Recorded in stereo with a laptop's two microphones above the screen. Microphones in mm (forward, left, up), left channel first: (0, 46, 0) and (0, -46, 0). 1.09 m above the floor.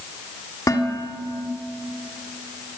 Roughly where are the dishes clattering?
Left.